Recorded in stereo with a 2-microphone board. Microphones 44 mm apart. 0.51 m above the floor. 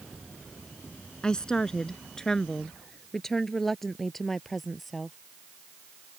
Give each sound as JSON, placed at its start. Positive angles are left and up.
{"t": 1.2, "sound": "a woman speaking", "side_deg": 20}